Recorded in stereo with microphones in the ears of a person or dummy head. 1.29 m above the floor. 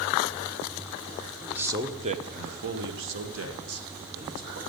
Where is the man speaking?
5° right (ahead or behind), 0.9 m; by 4.6 s 80° right, 2 m.